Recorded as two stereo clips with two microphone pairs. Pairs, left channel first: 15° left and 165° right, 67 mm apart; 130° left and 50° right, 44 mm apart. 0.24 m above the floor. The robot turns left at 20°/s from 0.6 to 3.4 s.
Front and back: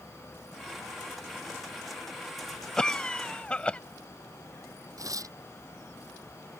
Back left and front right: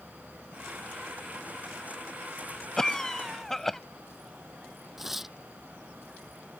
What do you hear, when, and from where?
2.8 s a cough: 75° left; by 3.8 s 60° left
5.0 s tearing paper: 130° right